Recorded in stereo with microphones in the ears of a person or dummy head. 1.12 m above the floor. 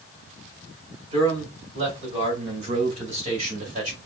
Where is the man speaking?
30° right (ahead or behind), 3.5 m; by 4.0 s 40° right (ahead or behind), 1.7 m.